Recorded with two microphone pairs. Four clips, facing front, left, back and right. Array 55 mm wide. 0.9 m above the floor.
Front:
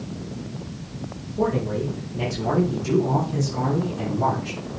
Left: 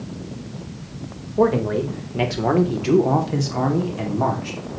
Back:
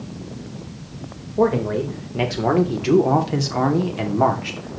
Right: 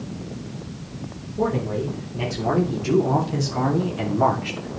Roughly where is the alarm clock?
I don't hear an alarm clock.